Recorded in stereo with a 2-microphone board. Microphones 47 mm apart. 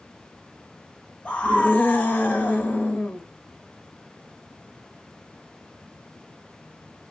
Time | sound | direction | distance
1.2 | a scream | 35° left (ahead or behind) | 1.4 m